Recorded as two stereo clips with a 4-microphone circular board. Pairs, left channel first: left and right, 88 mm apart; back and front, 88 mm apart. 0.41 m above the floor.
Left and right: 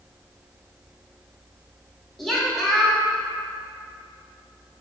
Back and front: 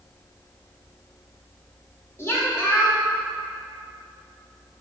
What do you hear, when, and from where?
2.2 s a woman speaking: 175° left, 0.8 m